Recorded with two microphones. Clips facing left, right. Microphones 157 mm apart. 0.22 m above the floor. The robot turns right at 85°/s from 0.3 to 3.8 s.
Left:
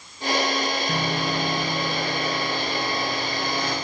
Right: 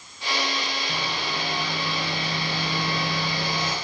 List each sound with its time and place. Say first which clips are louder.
0.9 s sawing: left 5 dB; 95° left, 2.0 m; by 3.8 s 20° right, 2.0 m